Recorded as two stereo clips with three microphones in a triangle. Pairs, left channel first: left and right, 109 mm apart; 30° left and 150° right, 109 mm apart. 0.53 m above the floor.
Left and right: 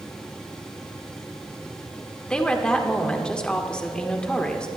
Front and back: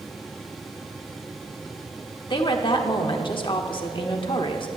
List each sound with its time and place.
2.3 s a woman speaking: 10° left, 1.1 m